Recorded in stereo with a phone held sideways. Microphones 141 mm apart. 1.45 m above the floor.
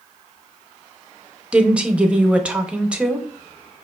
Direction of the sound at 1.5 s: 10° right (ahead or behind).